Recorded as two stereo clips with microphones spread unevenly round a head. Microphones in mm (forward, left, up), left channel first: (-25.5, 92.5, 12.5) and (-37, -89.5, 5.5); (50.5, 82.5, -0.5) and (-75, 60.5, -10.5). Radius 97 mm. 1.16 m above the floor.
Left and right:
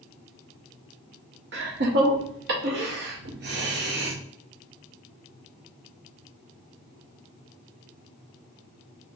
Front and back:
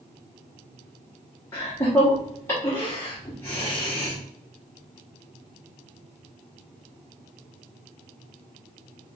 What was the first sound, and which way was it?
Laughter, 70° right.